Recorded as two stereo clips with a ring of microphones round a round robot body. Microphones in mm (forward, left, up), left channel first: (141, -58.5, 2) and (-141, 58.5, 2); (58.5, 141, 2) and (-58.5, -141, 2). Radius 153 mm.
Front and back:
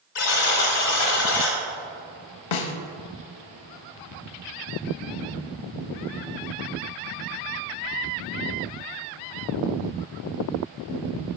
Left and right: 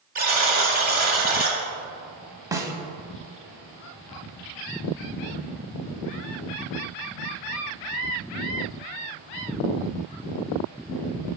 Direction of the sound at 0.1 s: 55° right.